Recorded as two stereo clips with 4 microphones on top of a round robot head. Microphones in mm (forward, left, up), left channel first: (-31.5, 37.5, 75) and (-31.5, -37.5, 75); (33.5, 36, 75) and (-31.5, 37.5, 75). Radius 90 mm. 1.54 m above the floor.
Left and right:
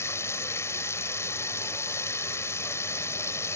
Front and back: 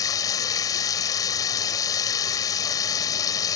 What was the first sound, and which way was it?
Running water, 25° left.